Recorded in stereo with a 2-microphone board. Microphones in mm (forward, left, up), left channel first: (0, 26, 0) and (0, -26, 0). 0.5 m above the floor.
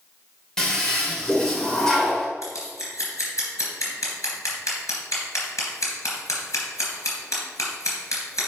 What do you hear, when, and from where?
0.6 s a toilet flushing: 15° left (ahead or behind), 1.8 m
2.4 s scissors: 75° left (ahead or behind), 3.5 m